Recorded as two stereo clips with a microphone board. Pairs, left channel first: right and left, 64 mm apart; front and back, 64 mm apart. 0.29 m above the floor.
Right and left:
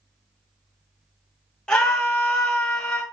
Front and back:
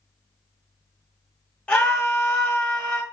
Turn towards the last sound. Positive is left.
turn(degrees=-30)